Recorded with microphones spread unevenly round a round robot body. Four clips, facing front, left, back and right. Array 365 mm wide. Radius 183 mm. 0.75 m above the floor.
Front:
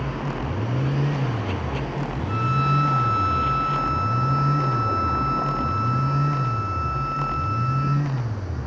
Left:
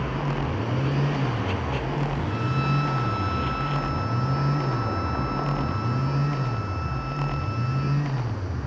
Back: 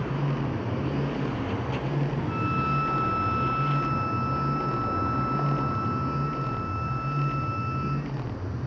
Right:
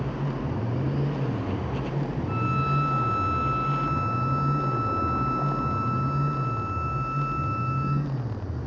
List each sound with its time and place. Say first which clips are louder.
2.3 s a violin: even, front 7 dB; 30° right, 1.6 m